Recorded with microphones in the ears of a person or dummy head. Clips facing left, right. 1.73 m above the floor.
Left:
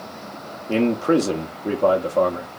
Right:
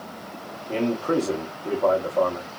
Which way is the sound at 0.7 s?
30° left (ahead or behind).